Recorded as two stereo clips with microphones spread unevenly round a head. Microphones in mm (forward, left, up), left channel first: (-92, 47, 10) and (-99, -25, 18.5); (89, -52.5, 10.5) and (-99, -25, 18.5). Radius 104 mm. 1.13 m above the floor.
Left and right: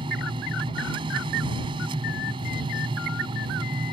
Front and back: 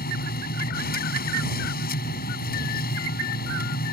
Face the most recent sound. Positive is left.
turn(degrees=-50)